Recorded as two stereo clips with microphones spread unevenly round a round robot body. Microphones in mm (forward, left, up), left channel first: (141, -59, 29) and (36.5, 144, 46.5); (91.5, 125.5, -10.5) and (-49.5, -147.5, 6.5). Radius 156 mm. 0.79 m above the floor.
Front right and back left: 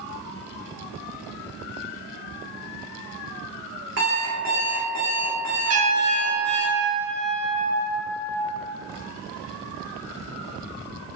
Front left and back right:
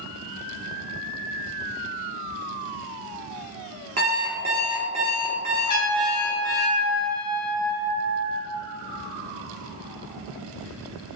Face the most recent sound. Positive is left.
turn(degrees=100)